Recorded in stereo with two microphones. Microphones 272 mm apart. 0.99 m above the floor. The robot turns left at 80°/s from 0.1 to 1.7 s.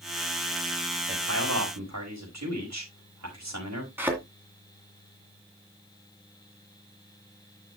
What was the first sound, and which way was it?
A man speaking, 40° right.